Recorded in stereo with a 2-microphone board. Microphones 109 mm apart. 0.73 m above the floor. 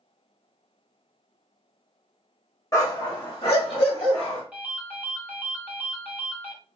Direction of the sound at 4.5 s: 10° right (ahead or behind).